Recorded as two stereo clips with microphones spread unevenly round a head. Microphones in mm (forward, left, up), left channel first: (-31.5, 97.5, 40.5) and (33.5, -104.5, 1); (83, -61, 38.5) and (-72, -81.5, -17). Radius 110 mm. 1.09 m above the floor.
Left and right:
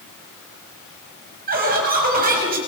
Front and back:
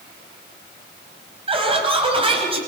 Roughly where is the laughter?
Behind right.